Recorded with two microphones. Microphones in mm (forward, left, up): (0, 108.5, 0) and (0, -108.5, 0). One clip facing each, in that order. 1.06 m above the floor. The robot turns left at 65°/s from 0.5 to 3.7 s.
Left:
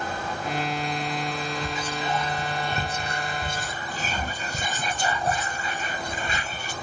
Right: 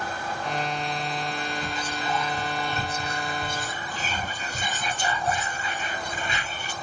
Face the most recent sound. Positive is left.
turn(degrees=50)